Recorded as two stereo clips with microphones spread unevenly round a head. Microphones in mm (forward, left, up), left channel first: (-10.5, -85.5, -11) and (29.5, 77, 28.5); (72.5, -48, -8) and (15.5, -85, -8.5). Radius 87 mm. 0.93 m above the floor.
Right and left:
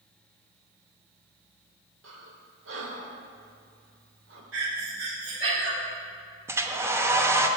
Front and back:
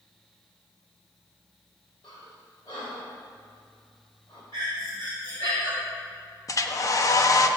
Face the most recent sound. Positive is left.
turn(degrees=-5)